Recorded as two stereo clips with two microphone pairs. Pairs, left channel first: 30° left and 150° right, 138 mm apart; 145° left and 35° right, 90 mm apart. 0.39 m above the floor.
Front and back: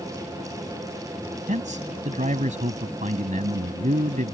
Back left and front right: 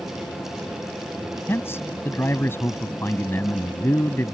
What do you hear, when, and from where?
1.5 s a man speaking: 155° right